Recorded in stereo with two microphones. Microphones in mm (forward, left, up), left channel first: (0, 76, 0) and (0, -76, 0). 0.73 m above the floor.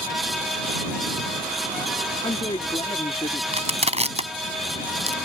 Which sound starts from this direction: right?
Crushing, at 3.5 s.